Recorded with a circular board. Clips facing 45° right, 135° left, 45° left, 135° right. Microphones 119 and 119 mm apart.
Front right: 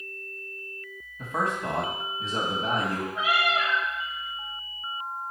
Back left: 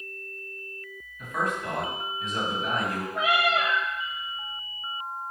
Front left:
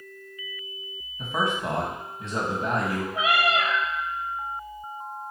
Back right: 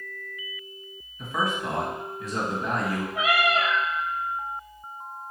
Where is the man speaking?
5° right, 2 m.